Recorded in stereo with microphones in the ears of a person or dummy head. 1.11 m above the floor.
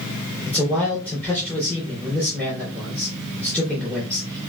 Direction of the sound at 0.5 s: 15° right (ahead or behind).